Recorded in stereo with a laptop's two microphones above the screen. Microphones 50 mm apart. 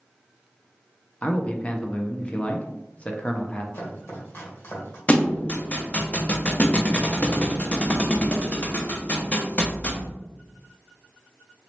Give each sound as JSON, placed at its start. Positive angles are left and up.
{"t": 1.2, "sound": "a man speaking", "side_deg": 25, "distance_m": 0.6}
{"t": 3.7, "sound": "chopping", "side_deg": 55, "distance_m": 1.2}
{"t": 5.1, "sound": "a thud", "side_deg": 25, "distance_m": 0.5}